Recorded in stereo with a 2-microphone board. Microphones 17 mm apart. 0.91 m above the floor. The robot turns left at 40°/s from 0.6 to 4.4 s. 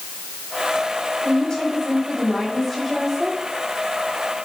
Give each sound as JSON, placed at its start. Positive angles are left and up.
{"t": 1.2, "sound": "a woman speaking", "azimuth_deg": 65, "distance_m": 3.5}